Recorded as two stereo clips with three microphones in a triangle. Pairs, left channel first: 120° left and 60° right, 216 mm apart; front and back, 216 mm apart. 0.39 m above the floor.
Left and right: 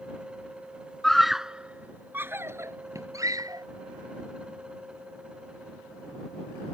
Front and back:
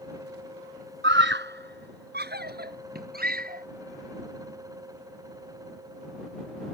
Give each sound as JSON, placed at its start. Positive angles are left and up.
{"t": 1.0, "sound": "a scream", "azimuth_deg": -150}